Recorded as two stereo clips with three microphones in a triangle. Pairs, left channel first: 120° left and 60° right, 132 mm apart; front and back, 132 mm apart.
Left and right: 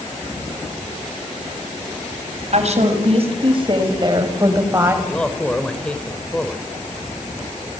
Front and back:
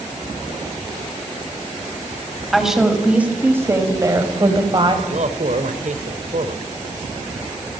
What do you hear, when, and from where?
2.5 s a woman speaking: 90° right, 5 m; by 5.0 s 130° right, 4.5 m
5.0 s a man speaking: 155° right, 2.5 m